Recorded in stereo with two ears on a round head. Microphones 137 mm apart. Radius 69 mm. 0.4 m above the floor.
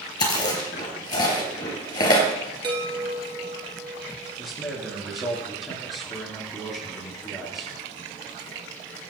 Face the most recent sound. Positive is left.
turn(degrees=0)  # may be behind; listen again after turning